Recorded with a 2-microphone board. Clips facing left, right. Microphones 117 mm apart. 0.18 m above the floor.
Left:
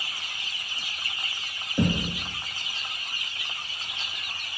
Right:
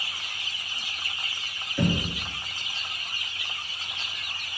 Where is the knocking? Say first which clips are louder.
Left 1 dB; 25° left (ahead or behind), 2.5 m.